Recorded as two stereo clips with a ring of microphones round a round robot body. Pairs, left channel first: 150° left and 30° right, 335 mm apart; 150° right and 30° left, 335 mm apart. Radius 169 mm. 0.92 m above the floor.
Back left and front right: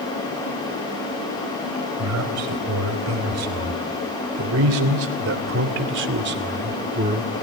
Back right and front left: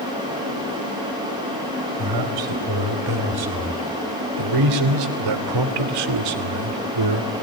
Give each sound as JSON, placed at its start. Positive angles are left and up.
{"t": 2.0, "sound": "a man speaking", "azimuth_deg": 10, "distance_m": 4.5}